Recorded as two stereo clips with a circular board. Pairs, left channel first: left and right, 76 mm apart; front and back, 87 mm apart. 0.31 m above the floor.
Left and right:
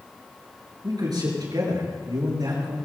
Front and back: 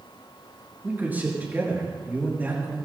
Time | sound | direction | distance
0.8 | a man speaking | 110° right | 5.5 m